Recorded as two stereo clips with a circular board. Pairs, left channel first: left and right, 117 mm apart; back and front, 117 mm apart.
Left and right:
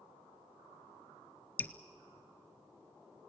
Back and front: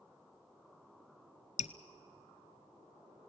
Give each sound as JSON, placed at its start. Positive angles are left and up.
{"t": 1.6, "sound": "dripping", "azimuth_deg": 165, "distance_m": 0.6}